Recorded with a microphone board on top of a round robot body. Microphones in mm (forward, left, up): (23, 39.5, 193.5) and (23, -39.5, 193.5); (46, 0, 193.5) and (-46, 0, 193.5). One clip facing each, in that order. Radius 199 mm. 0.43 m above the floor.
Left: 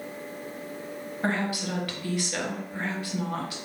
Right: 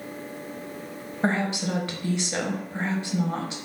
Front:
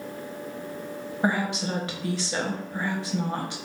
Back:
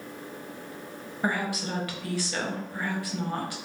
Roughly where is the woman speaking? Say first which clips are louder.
Right 3 dB, front 3 dB; ahead right.